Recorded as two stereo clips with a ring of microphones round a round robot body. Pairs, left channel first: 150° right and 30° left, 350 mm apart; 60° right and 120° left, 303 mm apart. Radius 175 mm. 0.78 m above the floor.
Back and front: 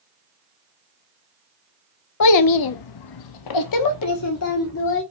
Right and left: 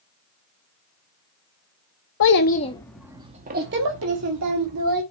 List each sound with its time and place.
2.2 s a child speaking: 110° right, 0.8 m; by 5.0 s 155° left, 1.6 m